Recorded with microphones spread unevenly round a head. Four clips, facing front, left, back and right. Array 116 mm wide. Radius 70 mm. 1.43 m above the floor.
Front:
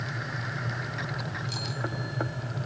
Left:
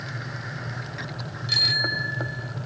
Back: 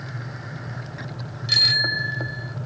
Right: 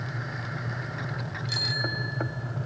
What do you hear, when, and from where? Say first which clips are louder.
1.5 s a bicycle bell: left 5 dB, back 7 dB; 155° left; by 2.6 s 150° left